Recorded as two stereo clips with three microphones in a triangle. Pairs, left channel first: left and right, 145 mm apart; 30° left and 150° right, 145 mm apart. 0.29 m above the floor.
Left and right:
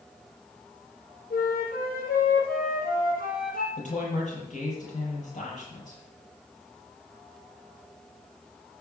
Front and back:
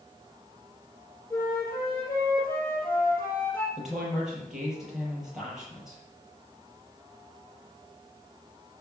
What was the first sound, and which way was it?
A flute, 105° left.